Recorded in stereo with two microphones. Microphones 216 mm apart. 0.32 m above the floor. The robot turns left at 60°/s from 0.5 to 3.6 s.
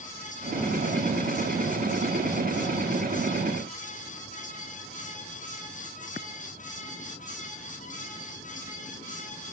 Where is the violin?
No violin in this recording.